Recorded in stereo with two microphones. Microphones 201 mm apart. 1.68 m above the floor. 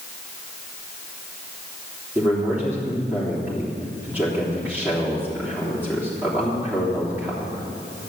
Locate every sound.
2.1 s a man speaking: 10° right (ahead or behind), 3.5 m